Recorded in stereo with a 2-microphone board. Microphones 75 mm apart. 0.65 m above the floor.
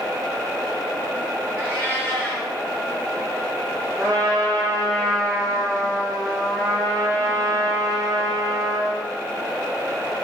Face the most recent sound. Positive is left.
turn(degrees=-50)  # may be behind; listen again after turning